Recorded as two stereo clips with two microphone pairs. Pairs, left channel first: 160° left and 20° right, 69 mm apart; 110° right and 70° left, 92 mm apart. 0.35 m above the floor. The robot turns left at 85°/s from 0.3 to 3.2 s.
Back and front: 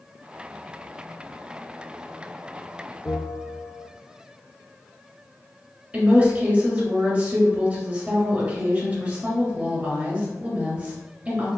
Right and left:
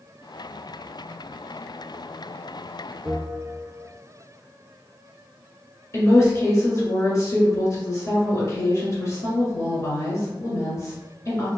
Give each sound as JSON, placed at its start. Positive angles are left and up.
{"t": 3.0, "sound": "a bell", "azimuth_deg": 120, "distance_m": 1.0}
{"t": 5.9, "sound": "a woman speaking", "azimuth_deg": -80, "distance_m": 1.6}